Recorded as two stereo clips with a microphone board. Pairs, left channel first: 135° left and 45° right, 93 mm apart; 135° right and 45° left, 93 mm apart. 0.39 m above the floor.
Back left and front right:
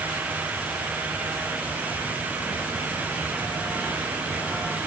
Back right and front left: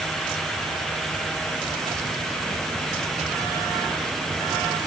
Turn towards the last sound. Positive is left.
No sound to turn to.